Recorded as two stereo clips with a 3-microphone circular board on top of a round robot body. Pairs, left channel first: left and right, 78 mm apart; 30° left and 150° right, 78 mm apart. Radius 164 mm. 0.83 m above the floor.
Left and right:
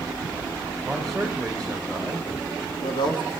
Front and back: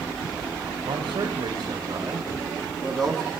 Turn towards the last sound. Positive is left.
turn(degrees=110)